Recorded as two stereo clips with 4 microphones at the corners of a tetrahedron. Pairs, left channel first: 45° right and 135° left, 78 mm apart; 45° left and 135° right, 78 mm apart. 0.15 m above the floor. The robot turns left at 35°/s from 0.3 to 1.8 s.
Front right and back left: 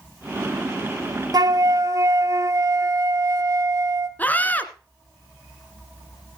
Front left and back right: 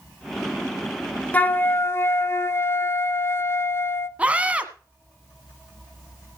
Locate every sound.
1.3 s a flute: 115° left, 0.6 m; by 4.1 s 95° left, 0.6 m
4.2 s a scream: 80° right, 1.2 m